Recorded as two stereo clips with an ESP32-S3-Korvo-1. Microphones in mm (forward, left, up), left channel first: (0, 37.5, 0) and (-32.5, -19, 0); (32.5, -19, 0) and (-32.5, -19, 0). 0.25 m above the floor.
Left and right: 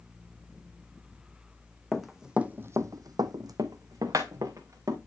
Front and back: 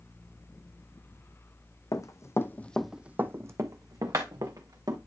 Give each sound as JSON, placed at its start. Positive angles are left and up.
{"t": 1.9, "sound": "running footsteps", "azimuth_deg": -30, "distance_m": 1.1}